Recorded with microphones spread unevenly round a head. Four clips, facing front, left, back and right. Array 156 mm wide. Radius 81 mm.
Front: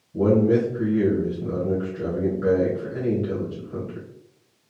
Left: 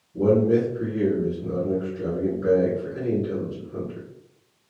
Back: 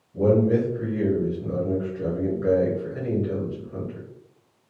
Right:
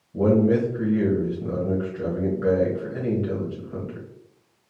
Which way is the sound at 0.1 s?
50° right.